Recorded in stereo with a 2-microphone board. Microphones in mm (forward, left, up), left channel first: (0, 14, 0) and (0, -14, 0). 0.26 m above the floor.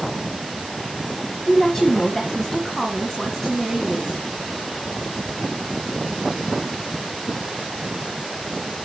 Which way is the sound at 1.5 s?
20° left (ahead or behind).